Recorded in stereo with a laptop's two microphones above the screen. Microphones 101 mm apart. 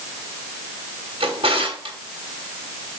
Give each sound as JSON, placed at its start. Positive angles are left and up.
{"t": 1.2, "sound": "a drawer", "side_deg": -85, "distance_m": 3.0}